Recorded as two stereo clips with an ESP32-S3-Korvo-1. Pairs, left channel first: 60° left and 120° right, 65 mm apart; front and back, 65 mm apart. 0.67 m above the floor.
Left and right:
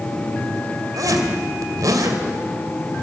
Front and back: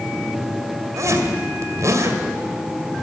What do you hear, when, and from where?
1.0 s a zipper: 145° right, 2.5 m